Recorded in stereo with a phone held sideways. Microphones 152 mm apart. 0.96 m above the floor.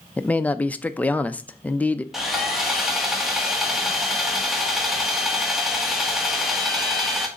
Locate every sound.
0.2 s a man speaking: 10° left (ahead or behind), 0.5 m
2.1 s sawing: centre (ahead or behind), 1.5 m